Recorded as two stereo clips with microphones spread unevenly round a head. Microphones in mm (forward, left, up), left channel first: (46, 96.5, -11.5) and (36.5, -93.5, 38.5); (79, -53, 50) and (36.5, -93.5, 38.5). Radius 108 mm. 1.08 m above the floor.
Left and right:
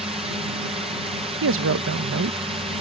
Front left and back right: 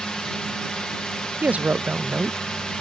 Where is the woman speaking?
70° right.